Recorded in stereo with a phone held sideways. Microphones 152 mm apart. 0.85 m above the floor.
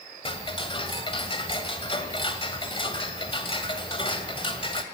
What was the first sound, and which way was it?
Ticking, 35° left (ahead or behind).